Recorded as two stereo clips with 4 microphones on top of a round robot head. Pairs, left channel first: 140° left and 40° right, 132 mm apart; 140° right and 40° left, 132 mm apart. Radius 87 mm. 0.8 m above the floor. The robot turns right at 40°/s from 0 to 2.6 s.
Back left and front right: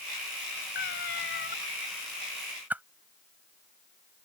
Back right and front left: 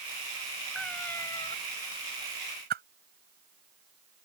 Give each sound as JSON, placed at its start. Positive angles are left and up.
{"t": 0.8, "sound": "a cat meowing", "azimuth_deg": 130}
{"t": 2.7, "sound": "a whoosh", "azimuth_deg": 40}